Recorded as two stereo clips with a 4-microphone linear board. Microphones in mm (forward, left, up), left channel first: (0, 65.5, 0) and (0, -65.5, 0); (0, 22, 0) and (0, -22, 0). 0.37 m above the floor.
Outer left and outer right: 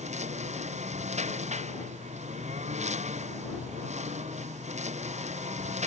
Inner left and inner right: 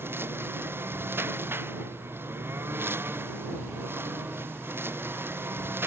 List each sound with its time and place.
0.0 s a lawn mower: 55° right (ahead or behind)